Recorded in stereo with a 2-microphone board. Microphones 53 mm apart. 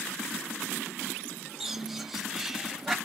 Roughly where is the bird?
Centre.